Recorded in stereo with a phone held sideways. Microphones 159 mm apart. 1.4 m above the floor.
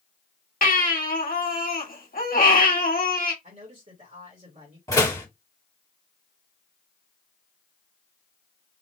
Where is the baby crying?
60° left (ahead or behind), 1.3 m.